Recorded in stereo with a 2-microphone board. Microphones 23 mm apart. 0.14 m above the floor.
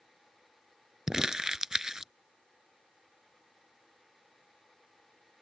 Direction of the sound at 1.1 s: 30° right (ahead or behind).